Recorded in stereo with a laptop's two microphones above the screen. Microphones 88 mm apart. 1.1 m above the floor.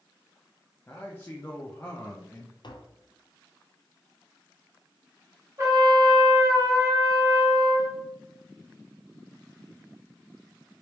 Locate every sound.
0.9 s a man speaking: 25° left (ahead or behind), 0.6 m
2.6 s tapping: 55° left (ahead or behind), 0.6 m
5.6 s a trumpet: 35° right (ahead or behind), 1.2 m